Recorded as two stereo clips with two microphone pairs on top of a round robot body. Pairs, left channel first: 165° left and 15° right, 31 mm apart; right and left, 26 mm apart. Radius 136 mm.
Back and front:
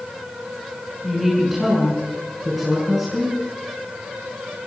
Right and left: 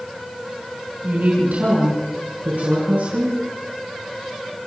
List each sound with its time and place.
1.0 s a woman speaking: 75° left, 6.5 m